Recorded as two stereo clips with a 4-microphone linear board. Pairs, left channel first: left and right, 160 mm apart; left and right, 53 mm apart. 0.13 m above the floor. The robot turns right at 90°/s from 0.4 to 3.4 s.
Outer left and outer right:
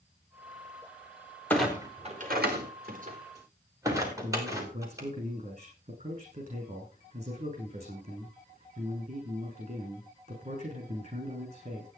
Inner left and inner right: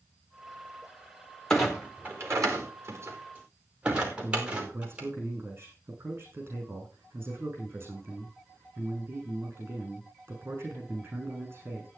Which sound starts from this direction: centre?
A clunk, at 1.5 s.